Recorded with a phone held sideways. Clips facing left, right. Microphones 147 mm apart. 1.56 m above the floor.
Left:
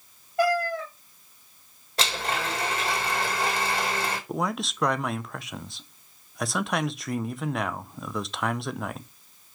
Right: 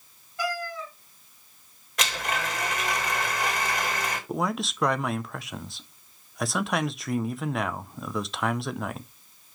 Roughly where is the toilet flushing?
No toilet flushing in this recording.